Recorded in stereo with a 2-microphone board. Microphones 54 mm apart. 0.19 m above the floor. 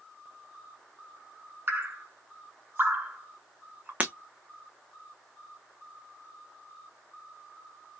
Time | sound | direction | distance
1.7 | dripping | 40° right (ahead or behind) | 1.2 m
4.0 | breaking glass | 25° right (ahead or behind) | 0.6 m